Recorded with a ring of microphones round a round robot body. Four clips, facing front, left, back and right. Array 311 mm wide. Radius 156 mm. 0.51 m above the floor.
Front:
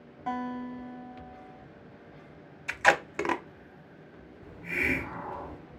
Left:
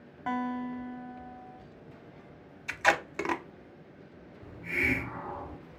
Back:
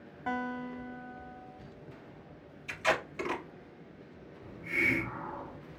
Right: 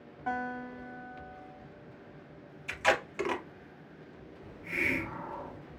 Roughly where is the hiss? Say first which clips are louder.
Left 3 dB, front 1 dB; ahead left.